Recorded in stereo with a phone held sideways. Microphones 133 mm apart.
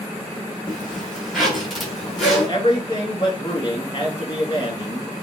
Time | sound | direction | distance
0.7 | a zipper | centre (ahead or behind) | 1.8 m
2.2 | a man speaking | 35° left (ahead or behind) | 2 m